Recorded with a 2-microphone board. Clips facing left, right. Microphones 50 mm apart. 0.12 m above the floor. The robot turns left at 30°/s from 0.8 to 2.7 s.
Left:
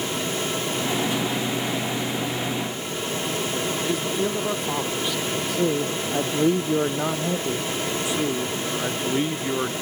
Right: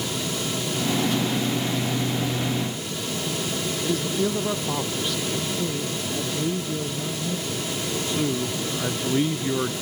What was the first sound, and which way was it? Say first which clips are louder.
A man speaking: right 3 dB; 10° left (ahead or behind).